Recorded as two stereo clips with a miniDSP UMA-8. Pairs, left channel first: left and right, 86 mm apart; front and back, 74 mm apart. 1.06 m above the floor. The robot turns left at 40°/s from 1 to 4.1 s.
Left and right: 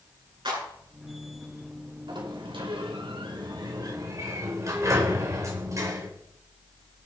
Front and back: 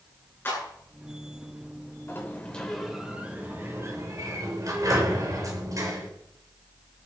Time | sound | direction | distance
0.5 | a clap | 60° right | 9.5 m
2.1 | a sliding door | 60° right | 3.5 m